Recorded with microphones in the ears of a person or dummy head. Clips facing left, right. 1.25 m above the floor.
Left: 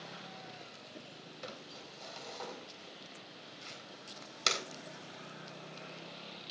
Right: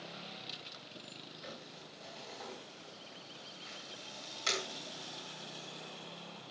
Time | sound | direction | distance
1.4 | crumpling | 80° left | 4 m